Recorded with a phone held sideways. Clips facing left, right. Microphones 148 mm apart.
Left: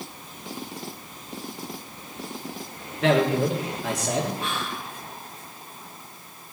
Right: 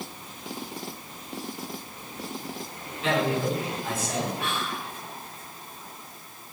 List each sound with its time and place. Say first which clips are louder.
3.0 s a man speaking: left 5 dB; 80° left, 2.5 m
4.4 s whispering: even; 70° right (ahead or behind), 4 m